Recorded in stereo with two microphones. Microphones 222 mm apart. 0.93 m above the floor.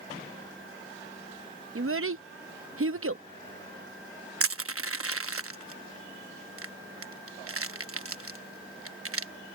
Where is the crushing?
75° right (ahead or behind).